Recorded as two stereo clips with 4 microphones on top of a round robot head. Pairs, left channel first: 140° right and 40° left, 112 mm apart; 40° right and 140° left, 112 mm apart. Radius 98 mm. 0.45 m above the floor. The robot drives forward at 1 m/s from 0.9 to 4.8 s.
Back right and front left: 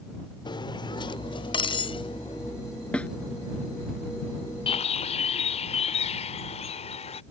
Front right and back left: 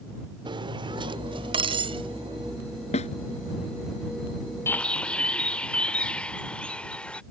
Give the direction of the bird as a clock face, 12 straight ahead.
4 o'clock.